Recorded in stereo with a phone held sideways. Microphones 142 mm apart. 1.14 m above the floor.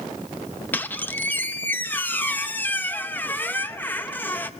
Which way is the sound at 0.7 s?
10° left (ahead or behind).